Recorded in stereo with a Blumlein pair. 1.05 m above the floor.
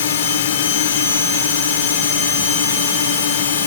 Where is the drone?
60° left.